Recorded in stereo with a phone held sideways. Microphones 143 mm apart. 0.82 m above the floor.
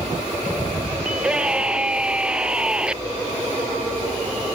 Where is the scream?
5° right (ahead or behind).